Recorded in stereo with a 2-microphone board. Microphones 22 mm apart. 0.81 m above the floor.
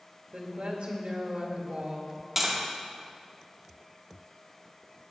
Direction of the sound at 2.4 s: 15° right (ahead or behind).